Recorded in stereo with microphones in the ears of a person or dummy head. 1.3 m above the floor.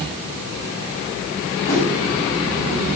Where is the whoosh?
10° left (ahead or behind), 6.5 m.